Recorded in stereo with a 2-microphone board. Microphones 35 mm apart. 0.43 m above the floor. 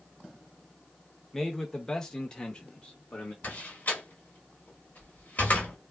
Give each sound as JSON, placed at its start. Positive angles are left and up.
{"t": 1.3, "sound": "a man speaking", "side_deg": 5, "distance_m": 0.9}
{"t": 3.4, "sound": "a door slam", "side_deg": 50, "distance_m": 1.1}